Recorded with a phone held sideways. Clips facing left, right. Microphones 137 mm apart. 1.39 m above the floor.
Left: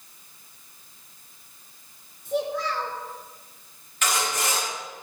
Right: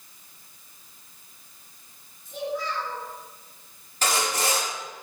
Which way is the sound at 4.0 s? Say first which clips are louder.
Right 1 dB; 35° right (ahead or behind).